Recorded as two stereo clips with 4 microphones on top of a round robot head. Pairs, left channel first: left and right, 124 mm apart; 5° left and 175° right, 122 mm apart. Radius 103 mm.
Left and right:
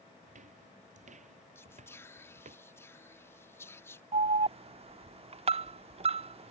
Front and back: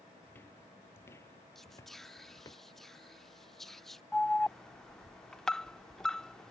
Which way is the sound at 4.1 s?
80° right.